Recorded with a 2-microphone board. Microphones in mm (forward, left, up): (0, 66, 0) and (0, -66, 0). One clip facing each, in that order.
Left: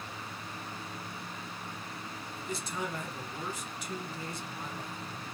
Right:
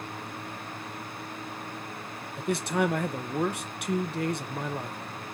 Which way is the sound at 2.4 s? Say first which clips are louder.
Right 11 dB; 70° right (ahead or behind).